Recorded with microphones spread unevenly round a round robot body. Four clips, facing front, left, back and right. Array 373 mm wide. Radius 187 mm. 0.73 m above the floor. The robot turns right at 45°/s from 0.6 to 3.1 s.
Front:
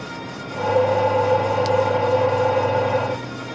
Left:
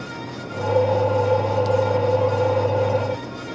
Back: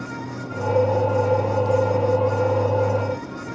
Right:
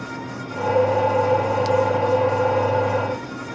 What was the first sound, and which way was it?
Only background noise.